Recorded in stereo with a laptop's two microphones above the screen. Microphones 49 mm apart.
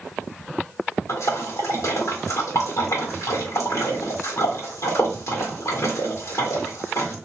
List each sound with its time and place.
1.1 s a splash: 80° left, 1.7 m